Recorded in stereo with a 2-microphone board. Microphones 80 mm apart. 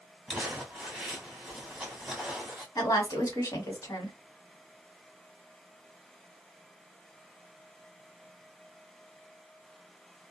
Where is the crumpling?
10° right (ahead or behind), 1.5 m.